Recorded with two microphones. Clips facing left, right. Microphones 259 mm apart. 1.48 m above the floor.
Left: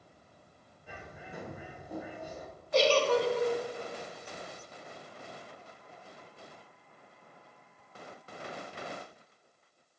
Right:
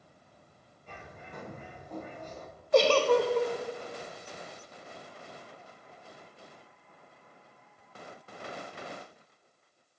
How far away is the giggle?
About 0.7 m.